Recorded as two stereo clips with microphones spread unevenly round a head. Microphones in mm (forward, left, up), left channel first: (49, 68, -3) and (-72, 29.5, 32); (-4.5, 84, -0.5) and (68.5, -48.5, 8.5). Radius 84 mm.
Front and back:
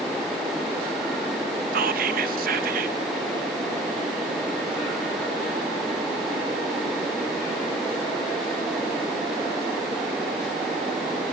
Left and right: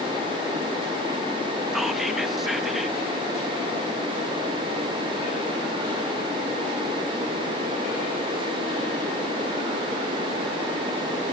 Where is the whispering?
150° right, 1.4 m.